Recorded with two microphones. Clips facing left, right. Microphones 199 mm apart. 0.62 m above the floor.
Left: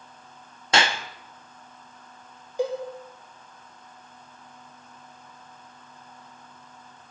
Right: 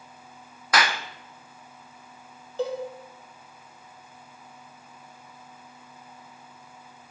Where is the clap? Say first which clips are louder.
Left 1 dB; 25° left (ahead or behind), 0.7 m.